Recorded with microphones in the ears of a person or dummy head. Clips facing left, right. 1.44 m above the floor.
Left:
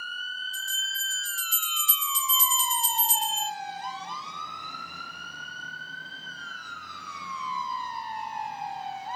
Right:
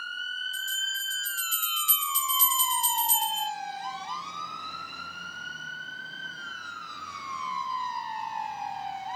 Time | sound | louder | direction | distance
0.5 | a bell | even | 45° right (ahead or behind) | 1.8 m